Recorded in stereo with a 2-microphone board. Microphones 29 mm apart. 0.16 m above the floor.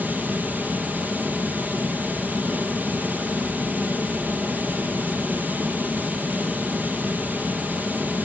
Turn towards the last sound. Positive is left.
turn(degrees=-75)  # may be behind; listen again after turning